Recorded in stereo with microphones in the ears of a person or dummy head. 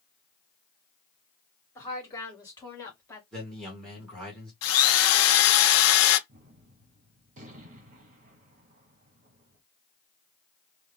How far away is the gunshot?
About 1.1 m.